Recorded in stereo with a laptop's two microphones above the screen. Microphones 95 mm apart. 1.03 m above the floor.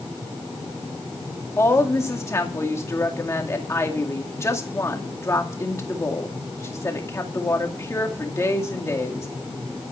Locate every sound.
1.6 s a woman speaking: 30° left (ahead or behind), 2 m